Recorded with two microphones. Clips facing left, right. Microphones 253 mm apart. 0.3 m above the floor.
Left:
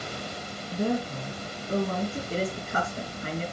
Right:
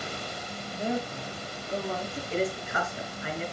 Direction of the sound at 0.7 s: 55° left (ahead or behind).